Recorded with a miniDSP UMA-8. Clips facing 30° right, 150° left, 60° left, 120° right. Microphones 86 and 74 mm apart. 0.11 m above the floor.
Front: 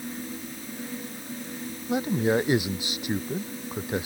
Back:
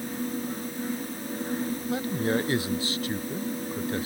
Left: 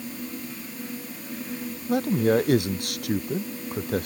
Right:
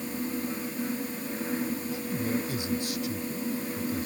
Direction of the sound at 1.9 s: 40° left.